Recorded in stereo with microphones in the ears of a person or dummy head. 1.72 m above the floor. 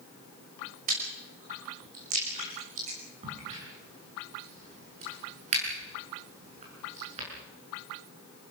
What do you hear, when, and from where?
0.9 s chewing: 40° right (ahead or behind), 6.5 m
3.2 s a crack: 40° right (ahead or behind), 7 m